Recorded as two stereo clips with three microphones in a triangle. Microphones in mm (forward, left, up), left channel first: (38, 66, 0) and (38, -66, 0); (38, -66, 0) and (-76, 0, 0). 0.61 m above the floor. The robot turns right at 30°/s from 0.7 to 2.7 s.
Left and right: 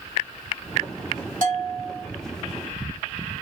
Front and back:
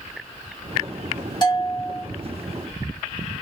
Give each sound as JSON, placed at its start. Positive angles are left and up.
{"t": 1.4, "sound": "a bell", "azimuth_deg": -85, "distance_m": 1.6}